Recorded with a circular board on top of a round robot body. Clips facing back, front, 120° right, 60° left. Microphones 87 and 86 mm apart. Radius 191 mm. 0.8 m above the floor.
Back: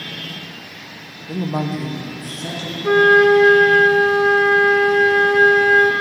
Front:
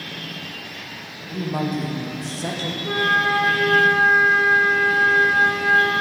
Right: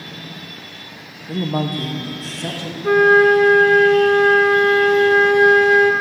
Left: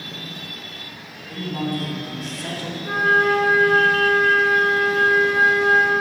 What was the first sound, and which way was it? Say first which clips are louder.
A woman speaking: back 2 dB, right 4 dB; 130° right.